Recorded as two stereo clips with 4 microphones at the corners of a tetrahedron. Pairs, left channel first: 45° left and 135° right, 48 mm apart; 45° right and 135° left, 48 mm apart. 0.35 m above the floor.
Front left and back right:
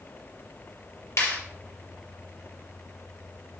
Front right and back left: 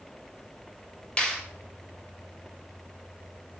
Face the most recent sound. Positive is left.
turn(degrees=25)